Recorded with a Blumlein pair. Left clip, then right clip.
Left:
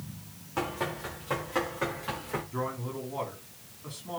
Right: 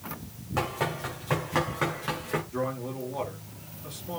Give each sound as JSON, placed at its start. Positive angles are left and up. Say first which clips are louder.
{"t": 0.6, "sound": "running footsteps", "louder": "right 3 dB", "azimuth_deg": -10, "distance_m": 6.5}
{"t": 2.5, "sound": "a man speaking", "louder": "right 3 dB", "azimuth_deg": 5, "distance_m": 5.0}